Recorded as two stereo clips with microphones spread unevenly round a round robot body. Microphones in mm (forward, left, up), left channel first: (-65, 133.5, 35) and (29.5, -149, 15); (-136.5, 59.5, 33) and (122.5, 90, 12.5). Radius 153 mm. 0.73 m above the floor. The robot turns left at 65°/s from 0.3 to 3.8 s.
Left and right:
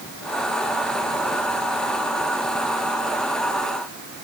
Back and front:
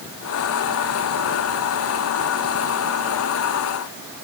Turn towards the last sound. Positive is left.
No sound to turn to.